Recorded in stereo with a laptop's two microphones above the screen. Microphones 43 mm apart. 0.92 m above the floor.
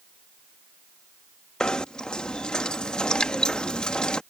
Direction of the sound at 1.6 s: 20° left (ahead or behind).